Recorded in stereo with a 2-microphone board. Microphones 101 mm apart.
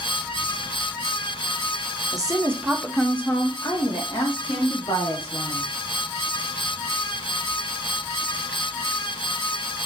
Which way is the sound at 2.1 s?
40° right (ahead or behind).